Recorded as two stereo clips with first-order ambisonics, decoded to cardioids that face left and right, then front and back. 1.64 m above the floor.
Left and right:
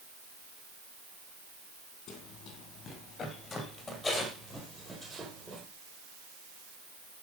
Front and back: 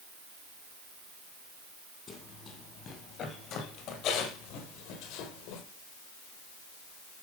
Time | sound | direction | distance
2.1 | running footsteps | 60° left | 2.5 m